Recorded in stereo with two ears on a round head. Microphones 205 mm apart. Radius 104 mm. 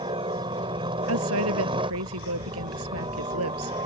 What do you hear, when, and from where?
0.0 s a helicopter: 25° right (ahead or behind)
1.1 s a woman speaking: 75° right (ahead or behind)